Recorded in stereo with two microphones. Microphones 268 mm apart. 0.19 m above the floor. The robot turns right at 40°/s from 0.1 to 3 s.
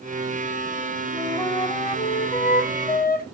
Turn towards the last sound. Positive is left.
turn(degrees=90)